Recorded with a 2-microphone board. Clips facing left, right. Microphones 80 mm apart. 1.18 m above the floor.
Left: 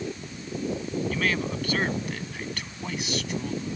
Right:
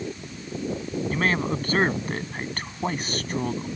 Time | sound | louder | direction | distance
1.1 | a man speaking | right 5 dB | 35° right (ahead or behind) | ?